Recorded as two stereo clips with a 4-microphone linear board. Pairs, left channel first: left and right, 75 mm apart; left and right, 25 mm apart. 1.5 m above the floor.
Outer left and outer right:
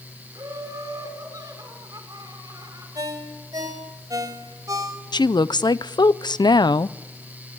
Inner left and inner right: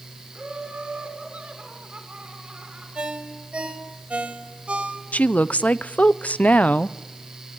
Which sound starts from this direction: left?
A woman speaking, at 5.1 s.